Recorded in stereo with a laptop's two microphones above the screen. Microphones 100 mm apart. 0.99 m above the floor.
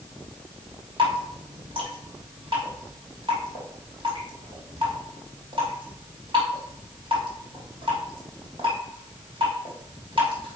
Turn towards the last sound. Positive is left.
turn(degrees=-50)  # may be behind; listen again after turning